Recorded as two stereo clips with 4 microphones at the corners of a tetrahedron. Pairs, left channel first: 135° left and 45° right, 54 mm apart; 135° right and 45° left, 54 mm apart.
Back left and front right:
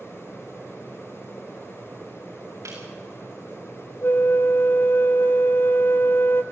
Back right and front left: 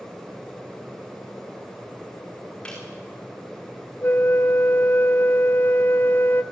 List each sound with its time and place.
2.6 s a snare drum: 65° right, 8 m
4.0 s a flute: straight behind, 0.8 m